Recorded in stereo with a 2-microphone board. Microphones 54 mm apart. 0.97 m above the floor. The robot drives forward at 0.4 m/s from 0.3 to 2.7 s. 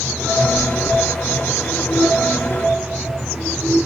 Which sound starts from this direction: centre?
Chewing, at 0.6 s.